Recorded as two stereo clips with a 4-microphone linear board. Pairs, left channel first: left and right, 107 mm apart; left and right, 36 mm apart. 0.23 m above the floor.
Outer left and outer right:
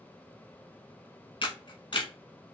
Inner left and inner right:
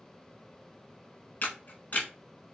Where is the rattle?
I don't hear a rattle.